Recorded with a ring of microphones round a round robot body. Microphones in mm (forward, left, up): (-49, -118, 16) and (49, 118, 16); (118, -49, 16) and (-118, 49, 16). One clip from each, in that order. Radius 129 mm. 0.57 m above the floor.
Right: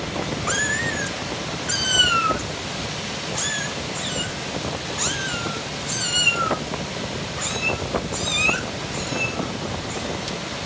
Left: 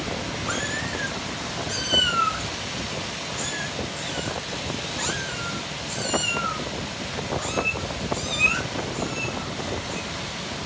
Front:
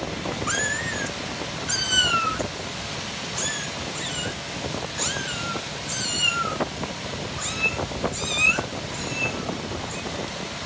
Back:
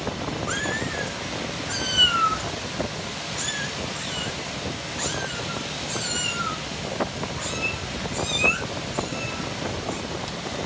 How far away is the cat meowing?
About 1.5 m.